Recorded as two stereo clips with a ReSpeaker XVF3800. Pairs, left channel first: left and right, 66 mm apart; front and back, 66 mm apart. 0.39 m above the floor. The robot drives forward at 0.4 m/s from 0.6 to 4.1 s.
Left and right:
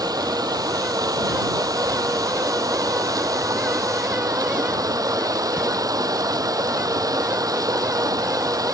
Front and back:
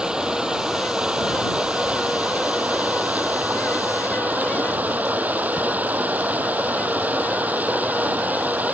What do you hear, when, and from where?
0.0 s running water: 100° right; by 8.7 s 115° right